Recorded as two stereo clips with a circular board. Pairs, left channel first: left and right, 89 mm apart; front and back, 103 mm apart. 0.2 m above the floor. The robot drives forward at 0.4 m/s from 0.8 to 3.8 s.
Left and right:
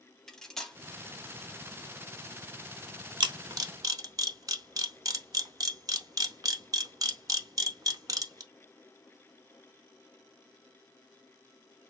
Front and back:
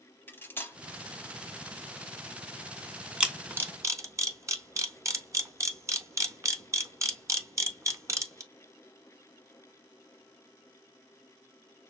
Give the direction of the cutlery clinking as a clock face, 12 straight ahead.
12 o'clock.